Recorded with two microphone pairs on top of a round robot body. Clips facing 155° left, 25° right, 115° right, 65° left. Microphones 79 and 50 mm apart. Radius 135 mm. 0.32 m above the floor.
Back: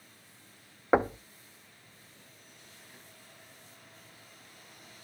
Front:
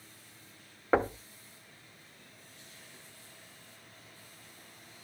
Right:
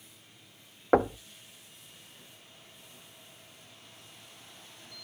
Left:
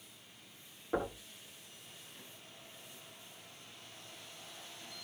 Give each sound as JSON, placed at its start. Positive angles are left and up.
{"t": 0.9, "sound": "knocking", "azimuth_deg": -125, "distance_m": 0.8}